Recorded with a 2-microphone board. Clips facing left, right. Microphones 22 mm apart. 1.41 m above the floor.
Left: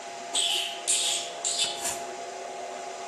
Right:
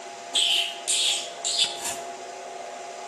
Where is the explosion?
30° right (ahead or behind), 1.1 m.